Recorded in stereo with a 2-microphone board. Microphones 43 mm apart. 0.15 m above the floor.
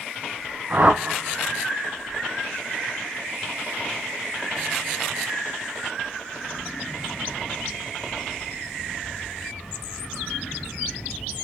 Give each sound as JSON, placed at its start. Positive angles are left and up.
{"t": 0.7, "sound": "a whoosh", "side_deg": -45, "distance_m": 1.9}